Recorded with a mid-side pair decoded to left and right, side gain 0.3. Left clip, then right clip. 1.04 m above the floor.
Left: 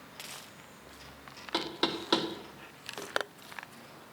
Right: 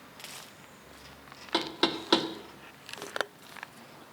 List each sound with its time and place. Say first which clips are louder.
1.5 s knocking: right 3 dB; 30° right, 1.2 m